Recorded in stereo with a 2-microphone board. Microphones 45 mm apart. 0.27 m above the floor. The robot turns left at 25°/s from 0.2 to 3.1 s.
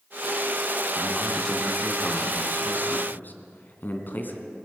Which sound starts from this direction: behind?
A man speaking, at 1.0 s.